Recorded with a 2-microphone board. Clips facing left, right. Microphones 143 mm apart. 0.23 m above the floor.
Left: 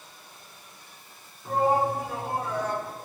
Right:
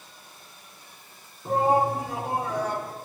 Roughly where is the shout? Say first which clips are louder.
Right 2 dB; right.